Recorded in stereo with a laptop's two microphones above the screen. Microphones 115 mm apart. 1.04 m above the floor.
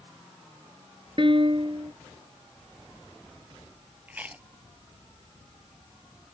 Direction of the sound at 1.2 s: 50° right (ahead or behind).